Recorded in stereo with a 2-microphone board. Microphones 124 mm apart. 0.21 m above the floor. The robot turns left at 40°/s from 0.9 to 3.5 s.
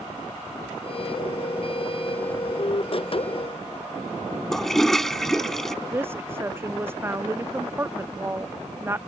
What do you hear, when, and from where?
4.5 s a toilet flushing: 5° left (ahead or behind)
5.9 s a woman speaking: 20° right (ahead or behind)